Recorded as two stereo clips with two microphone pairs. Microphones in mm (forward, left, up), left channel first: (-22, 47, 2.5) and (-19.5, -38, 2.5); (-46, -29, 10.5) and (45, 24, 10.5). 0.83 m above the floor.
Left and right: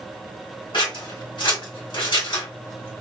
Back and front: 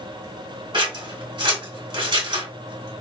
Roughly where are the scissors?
Left.